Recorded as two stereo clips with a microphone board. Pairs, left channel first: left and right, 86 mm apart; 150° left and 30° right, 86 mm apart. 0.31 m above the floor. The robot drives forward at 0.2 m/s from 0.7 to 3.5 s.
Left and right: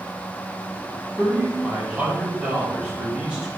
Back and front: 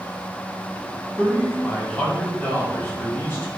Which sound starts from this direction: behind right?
A man speaking, at 1.2 s.